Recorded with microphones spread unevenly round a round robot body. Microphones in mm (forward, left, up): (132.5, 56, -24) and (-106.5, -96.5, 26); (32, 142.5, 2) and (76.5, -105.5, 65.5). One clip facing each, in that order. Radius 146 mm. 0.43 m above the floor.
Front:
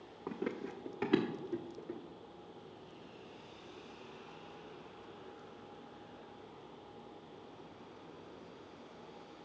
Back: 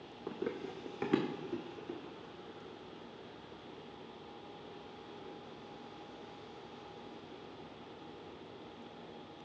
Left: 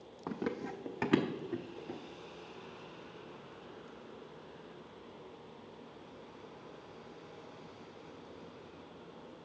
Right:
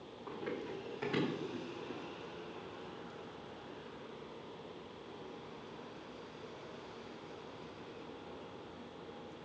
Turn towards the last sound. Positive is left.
turn(degrees=130)